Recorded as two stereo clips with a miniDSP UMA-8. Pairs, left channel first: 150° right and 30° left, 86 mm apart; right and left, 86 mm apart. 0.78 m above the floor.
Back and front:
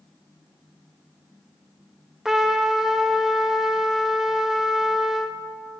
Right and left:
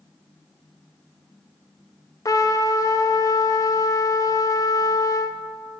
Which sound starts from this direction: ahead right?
A trumpet, at 2.2 s.